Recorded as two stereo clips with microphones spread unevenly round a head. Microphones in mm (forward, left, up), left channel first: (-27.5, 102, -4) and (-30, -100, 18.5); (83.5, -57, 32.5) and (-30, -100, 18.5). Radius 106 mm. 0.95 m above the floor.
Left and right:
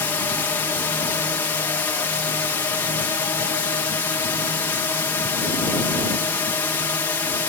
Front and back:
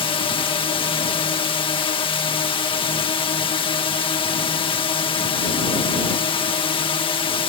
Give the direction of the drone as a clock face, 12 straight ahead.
11 o'clock.